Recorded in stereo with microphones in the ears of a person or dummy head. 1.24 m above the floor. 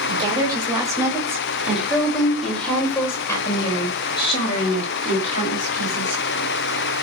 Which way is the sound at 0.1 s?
25° right (ahead or behind).